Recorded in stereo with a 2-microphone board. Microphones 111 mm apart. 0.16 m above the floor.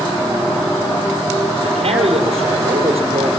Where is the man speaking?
70° right (ahead or behind), 4 m.